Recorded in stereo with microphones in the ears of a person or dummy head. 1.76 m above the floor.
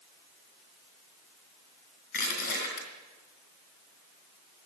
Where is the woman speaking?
I don't hear a woman speaking.